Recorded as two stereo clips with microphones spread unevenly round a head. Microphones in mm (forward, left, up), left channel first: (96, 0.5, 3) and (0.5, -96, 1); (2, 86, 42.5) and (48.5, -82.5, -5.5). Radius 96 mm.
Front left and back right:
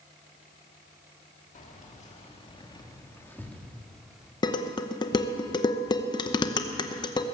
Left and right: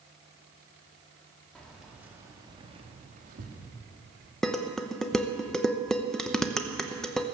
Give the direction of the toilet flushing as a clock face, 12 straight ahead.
No toilet flushing in this recording.